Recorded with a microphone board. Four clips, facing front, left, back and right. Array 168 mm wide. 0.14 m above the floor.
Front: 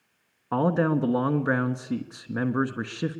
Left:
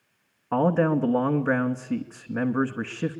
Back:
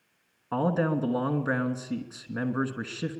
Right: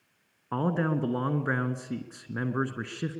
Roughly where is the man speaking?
Ahead left.